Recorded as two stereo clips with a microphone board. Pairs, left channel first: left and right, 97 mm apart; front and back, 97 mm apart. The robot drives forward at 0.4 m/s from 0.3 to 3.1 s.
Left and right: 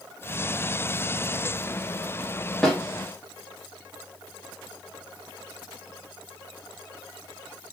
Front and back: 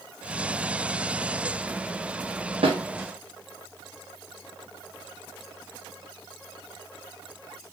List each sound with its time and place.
2.6 s a snare drum: 175° left, 1.1 m